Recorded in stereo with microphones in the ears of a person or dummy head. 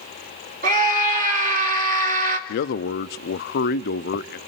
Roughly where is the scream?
Right.